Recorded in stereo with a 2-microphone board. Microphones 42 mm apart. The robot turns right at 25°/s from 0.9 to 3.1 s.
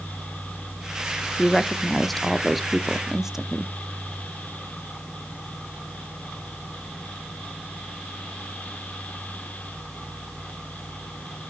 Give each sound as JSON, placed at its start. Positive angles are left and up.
{"t": 1.4, "sound": "a woman speaking", "azimuth_deg": 155, "distance_m": 0.8}